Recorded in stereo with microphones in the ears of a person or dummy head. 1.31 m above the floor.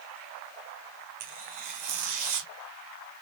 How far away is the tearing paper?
About 0.7 m.